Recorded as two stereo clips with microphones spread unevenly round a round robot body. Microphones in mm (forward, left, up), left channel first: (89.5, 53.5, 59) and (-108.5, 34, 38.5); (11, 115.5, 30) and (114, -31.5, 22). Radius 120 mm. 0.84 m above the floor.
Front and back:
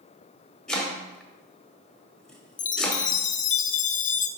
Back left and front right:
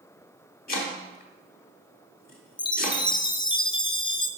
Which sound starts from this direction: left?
Chopping, at 0.7 s.